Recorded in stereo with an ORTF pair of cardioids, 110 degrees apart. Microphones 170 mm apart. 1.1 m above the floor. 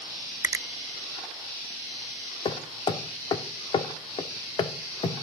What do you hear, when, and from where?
0.4 s a finger snap: 20° right, 0.6 m
2.5 s hammering: 30° left, 2.5 m